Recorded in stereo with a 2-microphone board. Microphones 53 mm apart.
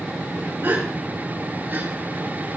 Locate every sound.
0.6 s a gasp: 50° right (ahead or behind), 8 m